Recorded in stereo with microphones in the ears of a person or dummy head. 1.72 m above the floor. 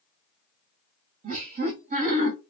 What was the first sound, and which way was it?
Laughter, 40° right (ahead or behind).